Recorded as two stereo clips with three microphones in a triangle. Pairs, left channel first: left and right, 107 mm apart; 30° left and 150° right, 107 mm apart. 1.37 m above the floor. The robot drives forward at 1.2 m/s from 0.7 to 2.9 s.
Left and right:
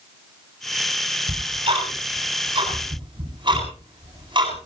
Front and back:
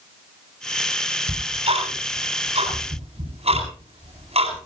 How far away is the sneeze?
I don't hear a sneeze.